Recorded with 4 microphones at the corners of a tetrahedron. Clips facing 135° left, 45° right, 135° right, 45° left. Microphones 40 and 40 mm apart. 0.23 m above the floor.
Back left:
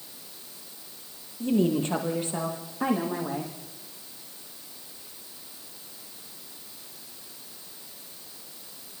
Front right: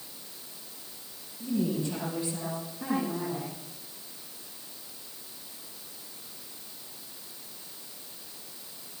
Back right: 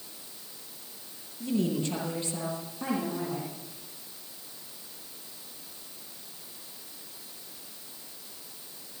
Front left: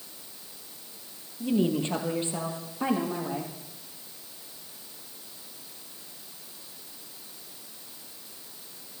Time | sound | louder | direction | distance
1.4 | a woman speaking | back left 5 dB, front left 3 dB | 110° left | 6.5 m